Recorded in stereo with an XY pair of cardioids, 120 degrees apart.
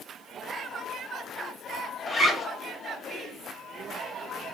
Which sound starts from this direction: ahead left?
A zipper, at 2.1 s.